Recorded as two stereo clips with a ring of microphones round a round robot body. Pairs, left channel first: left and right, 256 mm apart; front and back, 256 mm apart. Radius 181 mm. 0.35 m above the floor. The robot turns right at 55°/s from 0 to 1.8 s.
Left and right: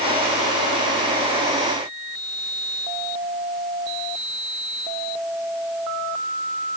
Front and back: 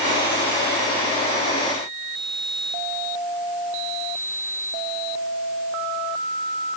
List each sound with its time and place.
Only background noise.